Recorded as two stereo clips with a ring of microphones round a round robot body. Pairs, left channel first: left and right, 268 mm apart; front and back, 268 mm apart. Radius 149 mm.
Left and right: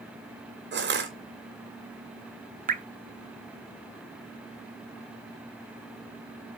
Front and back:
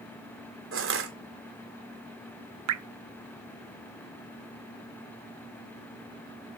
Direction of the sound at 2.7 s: 150° right.